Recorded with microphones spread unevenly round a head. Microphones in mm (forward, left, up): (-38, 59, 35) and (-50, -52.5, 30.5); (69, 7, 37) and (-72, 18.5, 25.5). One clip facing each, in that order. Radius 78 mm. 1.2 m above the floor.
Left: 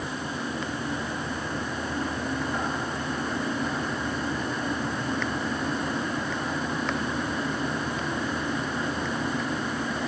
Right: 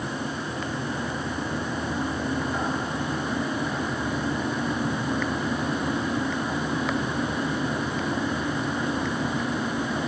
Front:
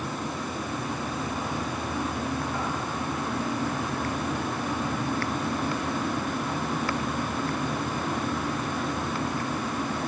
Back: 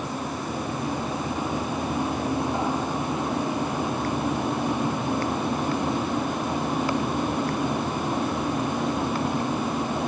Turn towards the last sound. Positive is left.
No sound to turn to.